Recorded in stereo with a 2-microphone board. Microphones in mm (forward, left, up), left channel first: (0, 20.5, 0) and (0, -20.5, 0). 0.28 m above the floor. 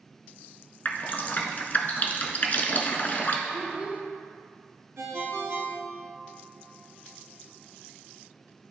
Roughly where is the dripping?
Left.